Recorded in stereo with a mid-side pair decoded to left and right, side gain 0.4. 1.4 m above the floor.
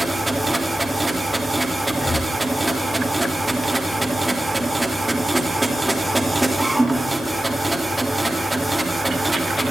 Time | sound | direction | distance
0.0 | a machine running | 10° right | 4 m
1.9 | breathing | 45° left | 1.6 m